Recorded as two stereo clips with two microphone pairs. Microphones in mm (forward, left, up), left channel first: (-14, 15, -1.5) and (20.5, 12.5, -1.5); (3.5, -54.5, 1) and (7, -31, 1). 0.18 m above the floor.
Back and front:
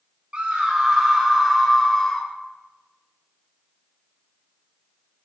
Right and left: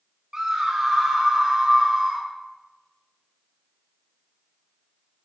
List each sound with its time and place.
0.3 s a scream: 30° left, 1.3 m; by 2.3 s 125° left, 1.1 m